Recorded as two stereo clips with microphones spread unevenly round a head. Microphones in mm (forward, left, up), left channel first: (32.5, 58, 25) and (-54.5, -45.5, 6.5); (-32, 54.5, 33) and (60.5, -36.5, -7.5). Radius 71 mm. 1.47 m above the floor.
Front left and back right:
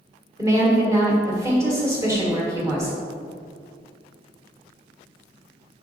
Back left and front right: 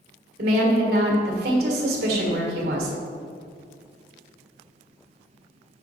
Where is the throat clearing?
No throat clearing in this recording.